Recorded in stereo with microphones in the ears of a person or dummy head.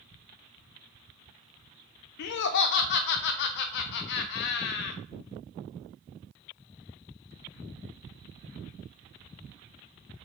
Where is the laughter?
55° left (ahead or behind), 0.5 m.